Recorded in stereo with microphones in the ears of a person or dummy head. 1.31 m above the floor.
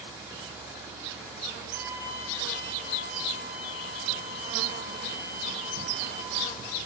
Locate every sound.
1.7 s a flute: 60° right (ahead or behind), 4 m